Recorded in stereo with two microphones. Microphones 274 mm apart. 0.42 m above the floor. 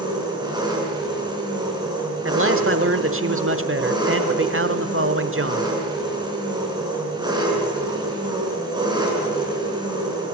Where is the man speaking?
50° right (ahead or behind), 1.2 m.